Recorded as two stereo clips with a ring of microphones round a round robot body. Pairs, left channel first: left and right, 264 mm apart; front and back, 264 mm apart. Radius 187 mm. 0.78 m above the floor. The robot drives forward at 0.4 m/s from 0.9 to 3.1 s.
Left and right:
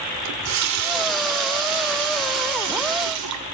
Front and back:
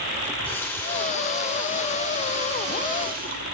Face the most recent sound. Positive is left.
turn(degrees=-115)